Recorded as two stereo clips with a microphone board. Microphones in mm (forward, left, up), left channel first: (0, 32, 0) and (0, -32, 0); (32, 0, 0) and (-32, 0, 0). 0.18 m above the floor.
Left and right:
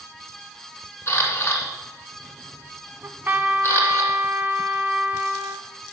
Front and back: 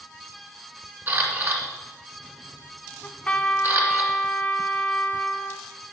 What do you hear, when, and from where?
1.1 s a camera shutter: 135° left, 2 m
3.0 s a trumpet: 55° right, 0.7 m